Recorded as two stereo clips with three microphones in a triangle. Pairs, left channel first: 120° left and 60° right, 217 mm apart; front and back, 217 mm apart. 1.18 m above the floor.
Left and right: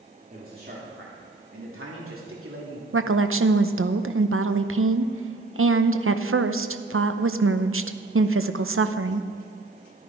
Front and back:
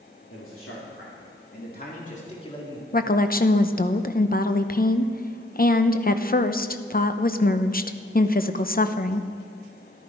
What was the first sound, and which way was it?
A man speaking, 10° right.